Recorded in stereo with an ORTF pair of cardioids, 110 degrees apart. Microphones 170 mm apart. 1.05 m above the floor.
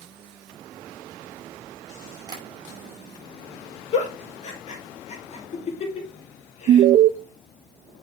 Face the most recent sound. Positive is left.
turn(degrees=-55)